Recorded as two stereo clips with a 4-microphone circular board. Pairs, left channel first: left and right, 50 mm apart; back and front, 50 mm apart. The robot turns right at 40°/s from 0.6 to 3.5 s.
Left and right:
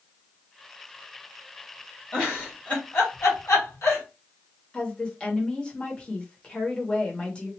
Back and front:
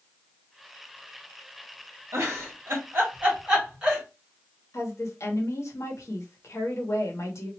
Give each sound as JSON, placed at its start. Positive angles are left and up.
{"t": 2.1, "sound": "a giggle", "azimuth_deg": 15, "distance_m": 1.7}
{"t": 4.7, "sound": "a woman speaking", "azimuth_deg": 160, "distance_m": 1.2}